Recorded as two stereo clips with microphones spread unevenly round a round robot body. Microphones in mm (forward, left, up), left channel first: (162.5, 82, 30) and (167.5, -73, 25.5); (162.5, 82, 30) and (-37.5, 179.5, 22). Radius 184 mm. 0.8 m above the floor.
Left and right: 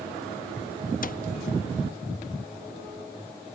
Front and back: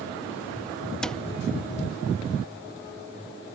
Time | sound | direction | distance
1.0 | a cupboard door | 60° left | ?